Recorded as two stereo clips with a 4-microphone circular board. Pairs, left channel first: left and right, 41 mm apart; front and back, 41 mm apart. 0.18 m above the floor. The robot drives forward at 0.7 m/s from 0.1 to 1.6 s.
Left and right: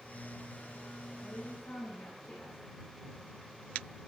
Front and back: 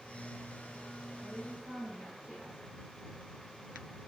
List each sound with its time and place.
1.2 s a woman speaking: 120° left, 8.5 m